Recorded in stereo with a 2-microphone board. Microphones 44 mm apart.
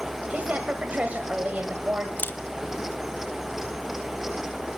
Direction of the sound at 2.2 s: 50° left (ahead or behind).